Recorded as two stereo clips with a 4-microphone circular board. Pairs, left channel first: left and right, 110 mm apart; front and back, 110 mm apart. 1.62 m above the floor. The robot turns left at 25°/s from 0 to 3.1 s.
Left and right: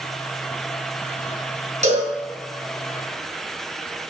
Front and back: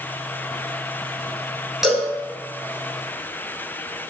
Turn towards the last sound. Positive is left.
turn(degrees=-125)